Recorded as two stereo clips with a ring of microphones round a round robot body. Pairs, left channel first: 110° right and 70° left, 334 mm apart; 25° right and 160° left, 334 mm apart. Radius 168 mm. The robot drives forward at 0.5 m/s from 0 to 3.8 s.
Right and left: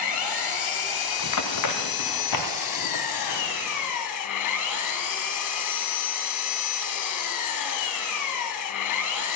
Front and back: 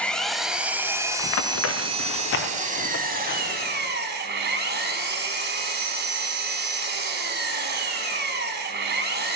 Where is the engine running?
110° right, 2 m; by 9.4 s 145° right, 3.5 m.